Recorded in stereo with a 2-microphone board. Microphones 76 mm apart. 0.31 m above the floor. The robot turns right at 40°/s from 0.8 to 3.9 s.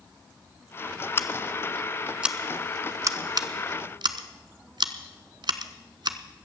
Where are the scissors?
30° left (ahead or behind), 0.8 m; by 6.2 s 80° right, 0.8 m.